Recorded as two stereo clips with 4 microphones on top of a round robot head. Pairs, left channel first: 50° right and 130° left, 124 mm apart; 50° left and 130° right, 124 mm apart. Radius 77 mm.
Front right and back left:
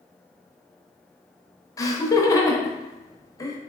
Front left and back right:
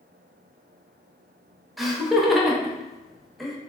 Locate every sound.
1.8 s laughter: 40° right, 0.8 m